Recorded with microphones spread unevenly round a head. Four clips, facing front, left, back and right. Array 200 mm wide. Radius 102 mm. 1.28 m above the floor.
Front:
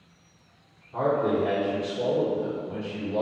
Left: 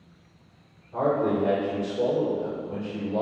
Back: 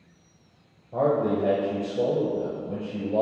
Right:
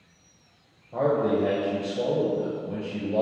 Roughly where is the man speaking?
Behind right.